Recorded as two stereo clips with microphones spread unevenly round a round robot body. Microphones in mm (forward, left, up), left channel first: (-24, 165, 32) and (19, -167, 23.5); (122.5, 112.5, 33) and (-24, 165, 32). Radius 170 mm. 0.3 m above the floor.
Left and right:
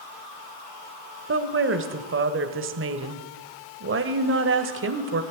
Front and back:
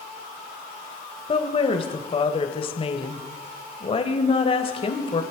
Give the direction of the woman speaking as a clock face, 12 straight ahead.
2 o'clock.